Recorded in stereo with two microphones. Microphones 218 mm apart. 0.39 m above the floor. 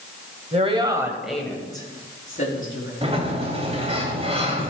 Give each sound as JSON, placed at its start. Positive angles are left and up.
{"t": 0.5, "sound": "a woman speaking", "side_deg": -30, "distance_m": 1.7}
{"t": 3.0, "sound": "a sliding door", "side_deg": -25, "distance_m": 2.0}